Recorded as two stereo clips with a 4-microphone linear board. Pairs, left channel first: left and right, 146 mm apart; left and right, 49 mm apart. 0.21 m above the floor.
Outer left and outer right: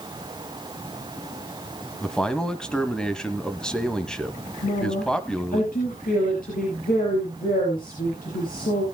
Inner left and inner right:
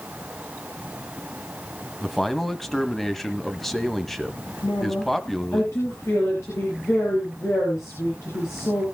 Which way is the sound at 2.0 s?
5° left (ahead or behind).